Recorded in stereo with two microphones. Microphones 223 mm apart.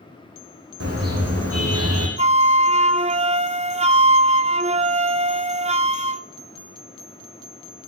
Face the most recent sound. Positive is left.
turn(degrees=-30)  # may be behind; listen again after turning